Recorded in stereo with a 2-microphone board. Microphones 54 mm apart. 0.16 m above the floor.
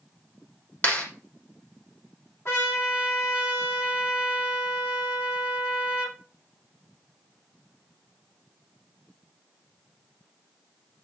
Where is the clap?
30° left (ahead or behind), 5.5 m.